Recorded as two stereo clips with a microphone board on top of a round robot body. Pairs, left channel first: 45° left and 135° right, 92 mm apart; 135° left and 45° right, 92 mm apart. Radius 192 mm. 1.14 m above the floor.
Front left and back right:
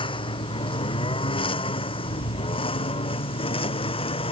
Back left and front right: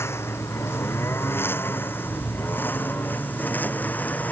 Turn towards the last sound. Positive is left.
turn(degrees=60)